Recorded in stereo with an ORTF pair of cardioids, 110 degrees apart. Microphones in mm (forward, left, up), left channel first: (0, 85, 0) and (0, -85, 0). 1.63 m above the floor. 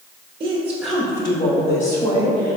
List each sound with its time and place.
0.4 s a woman speaking: 30° right, 0.6 m; by 2.6 s 55° left, 1.4 m